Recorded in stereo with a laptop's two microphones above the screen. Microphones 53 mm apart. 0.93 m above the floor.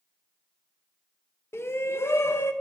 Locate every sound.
1.5 s a shout: 55° left (ahead or behind), 0.6 m